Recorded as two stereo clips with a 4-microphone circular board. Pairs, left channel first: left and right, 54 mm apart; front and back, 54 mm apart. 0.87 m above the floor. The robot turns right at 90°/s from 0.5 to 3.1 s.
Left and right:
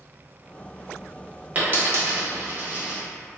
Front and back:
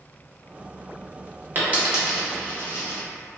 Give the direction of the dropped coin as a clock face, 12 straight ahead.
5 o'clock.